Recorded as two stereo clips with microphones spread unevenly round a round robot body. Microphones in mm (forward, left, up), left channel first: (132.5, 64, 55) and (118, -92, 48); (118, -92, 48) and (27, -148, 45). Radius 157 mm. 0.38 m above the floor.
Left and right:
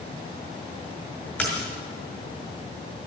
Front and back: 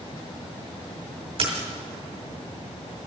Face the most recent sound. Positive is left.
turn(degrees=170)